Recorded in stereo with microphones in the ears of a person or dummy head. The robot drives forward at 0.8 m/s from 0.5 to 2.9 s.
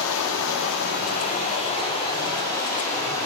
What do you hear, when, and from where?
0.0 s running water: 65° left (ahead or behind), 0.9 m; by 3.2 s 20° left (ahead or behind), 2 m